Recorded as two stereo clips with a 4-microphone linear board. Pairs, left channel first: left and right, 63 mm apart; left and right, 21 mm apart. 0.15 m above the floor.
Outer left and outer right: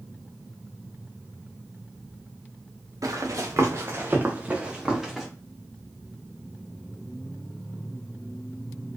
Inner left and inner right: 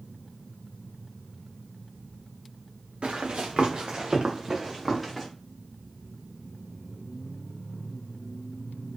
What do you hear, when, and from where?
3.0 s running footsteps: 65° right (ahead or behind), 1.4 m; by 5.3 s 5° right (ahead or behind), 1.8 m